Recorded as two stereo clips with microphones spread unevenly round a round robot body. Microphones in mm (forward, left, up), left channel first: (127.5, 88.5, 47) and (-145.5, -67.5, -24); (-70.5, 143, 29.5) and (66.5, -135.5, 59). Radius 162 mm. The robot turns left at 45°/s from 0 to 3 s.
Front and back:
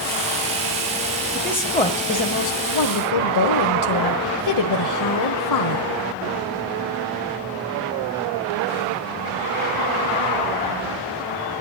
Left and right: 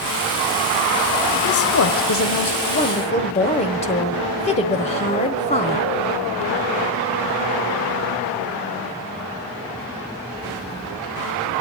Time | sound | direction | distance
1.4 | a woman speaking | 130° left | 1.4 m